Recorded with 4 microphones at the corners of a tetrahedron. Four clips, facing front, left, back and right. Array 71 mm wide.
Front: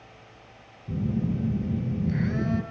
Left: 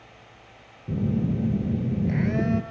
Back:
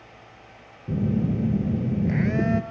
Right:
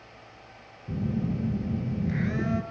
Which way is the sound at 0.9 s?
160° left.